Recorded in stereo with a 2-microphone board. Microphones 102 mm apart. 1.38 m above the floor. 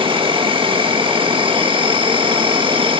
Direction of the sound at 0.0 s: 60° right (ahead or behind).